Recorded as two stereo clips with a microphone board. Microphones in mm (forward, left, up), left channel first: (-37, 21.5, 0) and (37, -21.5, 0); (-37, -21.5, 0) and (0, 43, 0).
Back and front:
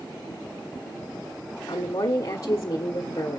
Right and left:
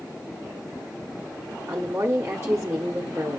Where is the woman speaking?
115° left, 1.5 m.